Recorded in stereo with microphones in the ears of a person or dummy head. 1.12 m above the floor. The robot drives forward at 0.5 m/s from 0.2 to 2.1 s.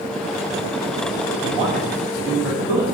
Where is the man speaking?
10° right (ahead or behind), 3 m.